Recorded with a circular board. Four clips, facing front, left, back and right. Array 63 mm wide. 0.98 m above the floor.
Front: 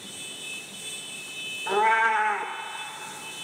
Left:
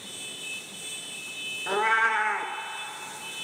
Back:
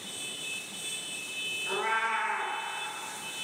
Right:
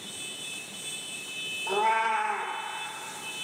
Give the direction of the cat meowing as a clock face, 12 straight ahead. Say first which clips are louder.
Left 2 dB, front 9 dB; 10 o'clock.